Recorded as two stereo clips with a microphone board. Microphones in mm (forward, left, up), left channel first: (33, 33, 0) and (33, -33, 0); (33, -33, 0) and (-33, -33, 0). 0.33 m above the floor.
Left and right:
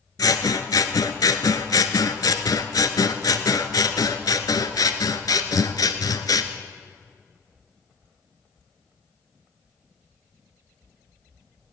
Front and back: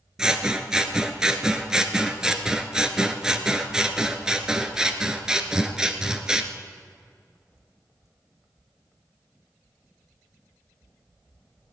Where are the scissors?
100° left, 1.0 m.